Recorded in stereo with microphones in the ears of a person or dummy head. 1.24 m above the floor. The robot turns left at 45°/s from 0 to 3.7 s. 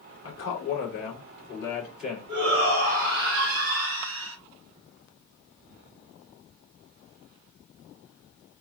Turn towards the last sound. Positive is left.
turn(degrees=-90)